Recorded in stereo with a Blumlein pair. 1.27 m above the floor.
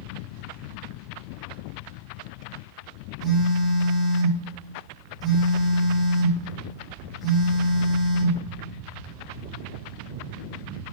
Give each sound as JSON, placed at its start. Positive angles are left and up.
{"t": 3.2, "sound": "a phone buzzing", "azimuth_deg": 15, "distance_m": 3.0}